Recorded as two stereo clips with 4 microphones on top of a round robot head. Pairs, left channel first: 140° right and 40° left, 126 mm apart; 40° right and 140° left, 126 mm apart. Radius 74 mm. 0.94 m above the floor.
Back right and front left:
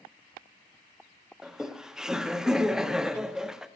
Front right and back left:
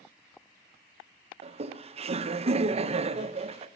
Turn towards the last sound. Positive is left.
turn(degrees=125)